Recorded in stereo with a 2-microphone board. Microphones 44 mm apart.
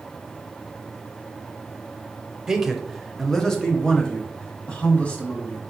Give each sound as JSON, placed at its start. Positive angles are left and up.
{"t": 2.5, "sound": "a man speaking", "side_deg": -10, "distance_m": 0.9}